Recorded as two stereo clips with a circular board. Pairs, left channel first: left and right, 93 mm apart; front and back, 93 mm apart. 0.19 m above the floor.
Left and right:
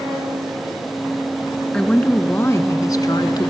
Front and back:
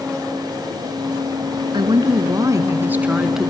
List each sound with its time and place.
1.7 s a woman speaking: 170° left, 1.8 m; by 3.5 s 90° left, 1.6 m